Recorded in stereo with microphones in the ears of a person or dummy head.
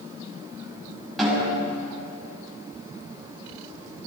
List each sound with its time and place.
1.2 s a snare drum: centre (ahead or behind), 6 m